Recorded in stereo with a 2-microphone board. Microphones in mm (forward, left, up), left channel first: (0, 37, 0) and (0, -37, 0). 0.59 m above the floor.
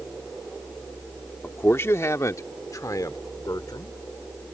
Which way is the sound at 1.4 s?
30° left (ahead or behind).